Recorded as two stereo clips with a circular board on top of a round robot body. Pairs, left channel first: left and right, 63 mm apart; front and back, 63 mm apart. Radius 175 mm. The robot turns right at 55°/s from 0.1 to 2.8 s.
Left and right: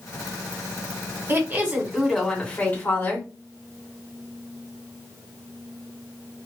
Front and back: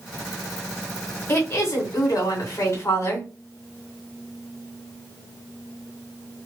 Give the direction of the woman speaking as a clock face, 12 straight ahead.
2 o'clock.